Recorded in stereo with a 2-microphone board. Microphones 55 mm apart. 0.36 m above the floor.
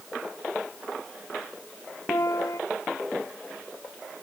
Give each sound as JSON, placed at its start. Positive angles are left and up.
{"t": 2.1, "sound": "a piano", "side_deg": 70}